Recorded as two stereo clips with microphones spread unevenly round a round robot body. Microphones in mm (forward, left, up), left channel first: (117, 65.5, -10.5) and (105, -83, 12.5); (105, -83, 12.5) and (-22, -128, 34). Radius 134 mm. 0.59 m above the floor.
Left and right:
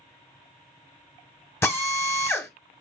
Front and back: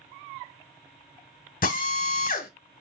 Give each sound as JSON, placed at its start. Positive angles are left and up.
{"t": 1.6, "sound": "a drill", "azimuth_deg": 10, "distance_m": 1.0}